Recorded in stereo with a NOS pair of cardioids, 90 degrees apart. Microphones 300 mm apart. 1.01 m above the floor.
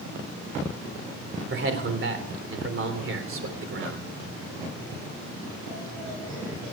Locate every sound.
1.5 s a man speaking: 45° right, 3.5 m